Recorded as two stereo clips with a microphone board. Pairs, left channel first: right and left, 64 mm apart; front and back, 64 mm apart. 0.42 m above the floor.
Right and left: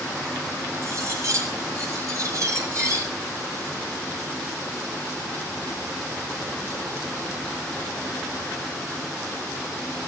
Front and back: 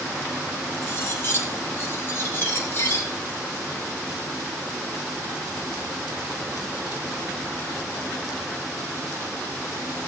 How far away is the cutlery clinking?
About 8.5 m.